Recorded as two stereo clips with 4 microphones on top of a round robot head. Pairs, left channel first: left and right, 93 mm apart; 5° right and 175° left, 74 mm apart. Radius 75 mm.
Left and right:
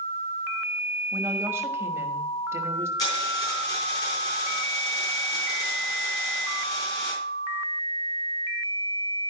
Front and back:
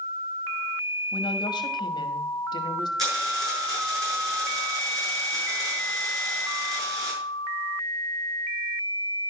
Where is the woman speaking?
25° right, 1.0 m.